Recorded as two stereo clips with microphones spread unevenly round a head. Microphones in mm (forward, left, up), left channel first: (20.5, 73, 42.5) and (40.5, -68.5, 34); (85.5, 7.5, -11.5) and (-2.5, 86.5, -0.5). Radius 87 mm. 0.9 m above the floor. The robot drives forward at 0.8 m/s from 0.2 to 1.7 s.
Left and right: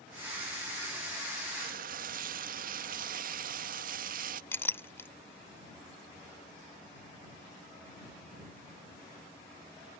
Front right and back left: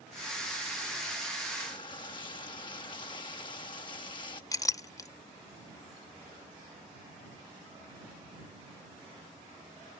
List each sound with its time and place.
1.6 s frying: 95° right; by 4.4 s 105° right
4.5 s a clink: 25° left